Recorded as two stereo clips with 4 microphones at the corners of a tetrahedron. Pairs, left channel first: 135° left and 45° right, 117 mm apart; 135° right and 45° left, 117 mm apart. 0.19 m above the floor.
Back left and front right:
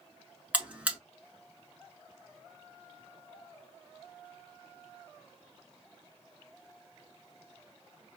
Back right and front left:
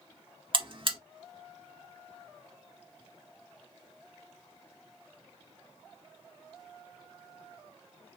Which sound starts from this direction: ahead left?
A buzzer, at 0.5 s.